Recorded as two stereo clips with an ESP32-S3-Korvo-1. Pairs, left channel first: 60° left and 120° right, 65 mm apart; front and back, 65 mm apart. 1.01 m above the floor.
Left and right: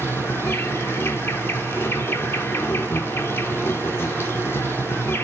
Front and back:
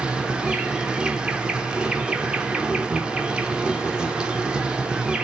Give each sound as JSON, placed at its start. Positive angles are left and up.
{"t": 0.0, "sound": "an insect", "azimuth_deg": 105, "distance_m": 0.8}